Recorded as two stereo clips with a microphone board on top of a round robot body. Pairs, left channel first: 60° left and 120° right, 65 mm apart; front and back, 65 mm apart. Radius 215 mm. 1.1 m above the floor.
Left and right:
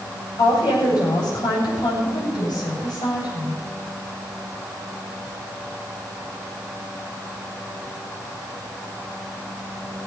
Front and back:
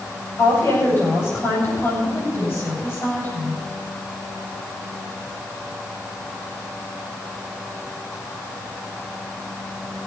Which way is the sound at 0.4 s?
55° left.